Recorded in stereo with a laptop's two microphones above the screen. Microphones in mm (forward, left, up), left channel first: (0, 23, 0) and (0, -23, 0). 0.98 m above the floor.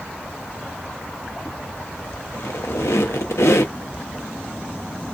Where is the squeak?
80° left, 0.7 m.